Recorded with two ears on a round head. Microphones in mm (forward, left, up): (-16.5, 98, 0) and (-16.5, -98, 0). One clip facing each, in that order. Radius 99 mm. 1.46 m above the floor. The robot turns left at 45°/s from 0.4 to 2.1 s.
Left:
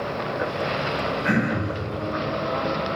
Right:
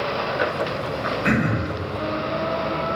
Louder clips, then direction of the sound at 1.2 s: Right 2 dB; 50° right (ahead or behind).